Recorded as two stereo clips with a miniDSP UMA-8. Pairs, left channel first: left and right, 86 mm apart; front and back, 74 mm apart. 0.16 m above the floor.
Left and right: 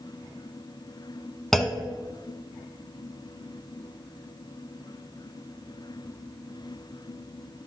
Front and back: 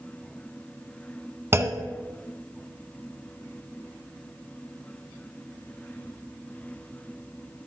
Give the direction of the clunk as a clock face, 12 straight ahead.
6 o'clock.